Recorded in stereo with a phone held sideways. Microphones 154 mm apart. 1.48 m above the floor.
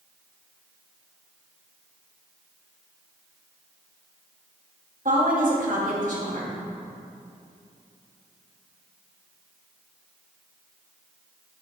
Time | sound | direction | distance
5.0 | a woman speaking | 65° right (ahead or behind) | 3 m